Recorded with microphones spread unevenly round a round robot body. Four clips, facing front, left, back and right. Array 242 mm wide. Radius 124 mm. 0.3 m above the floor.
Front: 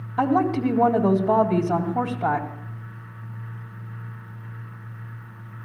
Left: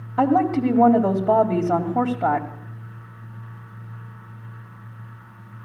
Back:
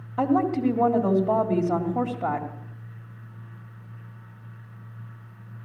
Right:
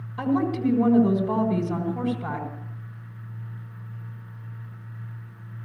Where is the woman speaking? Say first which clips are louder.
Left 6 dB, front 2 dB; 90° left, 1.9 m.